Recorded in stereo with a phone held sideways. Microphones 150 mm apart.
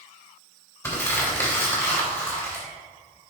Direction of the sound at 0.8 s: 20° left (ahead or behind).